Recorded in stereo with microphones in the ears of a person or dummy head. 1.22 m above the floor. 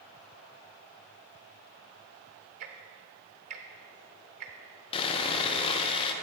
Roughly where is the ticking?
Right.